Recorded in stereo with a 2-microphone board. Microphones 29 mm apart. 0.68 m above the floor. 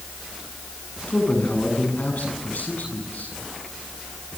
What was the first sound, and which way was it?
A man speaking, 65° left (ahead or behind).